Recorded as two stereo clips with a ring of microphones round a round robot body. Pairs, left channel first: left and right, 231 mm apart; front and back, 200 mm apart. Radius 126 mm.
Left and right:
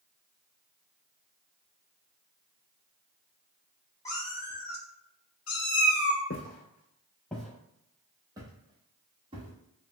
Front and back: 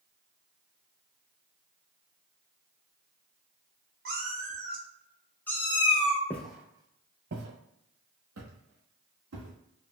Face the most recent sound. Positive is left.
turn(degrees=-160)